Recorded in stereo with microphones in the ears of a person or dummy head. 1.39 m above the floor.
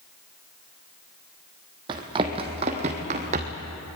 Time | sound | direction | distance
1.9 | running footsteps | 25° right (ahead or behind) | 2.5 m